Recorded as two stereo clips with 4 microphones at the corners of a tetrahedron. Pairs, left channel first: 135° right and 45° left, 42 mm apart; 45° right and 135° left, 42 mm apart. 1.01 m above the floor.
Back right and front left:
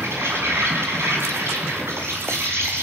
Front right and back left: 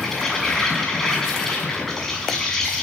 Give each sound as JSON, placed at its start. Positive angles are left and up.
{"t": 0.0, "sound": "an insect", "azimuth_deg": 35, "distance_m": 7.0}